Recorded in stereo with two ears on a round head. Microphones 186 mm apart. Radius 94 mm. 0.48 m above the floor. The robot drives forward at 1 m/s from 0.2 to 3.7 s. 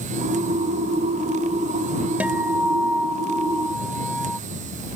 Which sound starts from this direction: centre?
A guitar, at 2.2 s.